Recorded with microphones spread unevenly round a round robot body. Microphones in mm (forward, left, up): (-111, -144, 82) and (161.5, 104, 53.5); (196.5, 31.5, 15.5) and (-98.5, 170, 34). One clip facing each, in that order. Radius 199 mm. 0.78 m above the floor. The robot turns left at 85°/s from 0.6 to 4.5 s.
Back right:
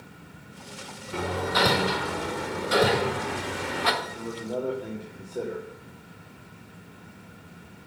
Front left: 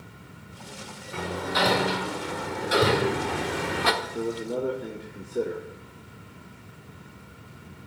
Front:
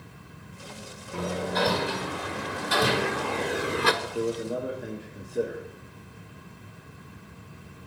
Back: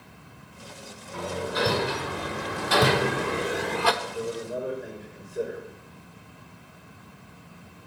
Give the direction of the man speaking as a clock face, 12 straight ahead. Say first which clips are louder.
Front left 5 dB, front 3 dB; 11 o'clock.